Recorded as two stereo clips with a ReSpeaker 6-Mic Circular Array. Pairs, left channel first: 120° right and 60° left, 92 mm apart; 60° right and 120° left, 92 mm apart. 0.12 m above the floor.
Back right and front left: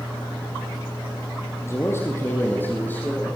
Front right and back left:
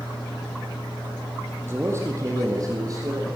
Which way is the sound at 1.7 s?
175° right.